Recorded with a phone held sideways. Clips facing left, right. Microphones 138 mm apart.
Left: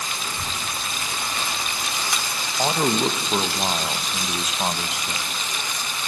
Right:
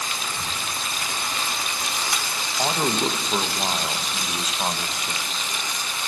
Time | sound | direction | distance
0.2 | a child speaking | centre (ahead or behind) | 0.7 m
2.6 | a man speaking | 10° left (ahead or behind) | 0.6 m